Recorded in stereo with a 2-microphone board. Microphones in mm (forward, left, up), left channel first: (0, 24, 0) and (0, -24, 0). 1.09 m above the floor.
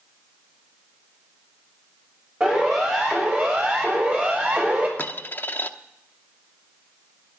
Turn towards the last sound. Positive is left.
turn(degrees=45)  # may be behind; listen again after turning